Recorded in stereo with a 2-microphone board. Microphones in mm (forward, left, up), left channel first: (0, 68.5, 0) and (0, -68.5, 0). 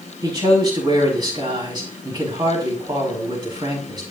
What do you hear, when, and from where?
0.2 s a man speaking: 30° right (ahead or behind), 6 m